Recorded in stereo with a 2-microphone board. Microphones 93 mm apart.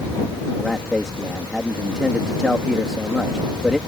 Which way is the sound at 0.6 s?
5° right (ahead or behind).